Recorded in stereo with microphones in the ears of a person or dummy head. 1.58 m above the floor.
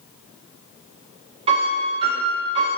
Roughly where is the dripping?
I don't hear dripping.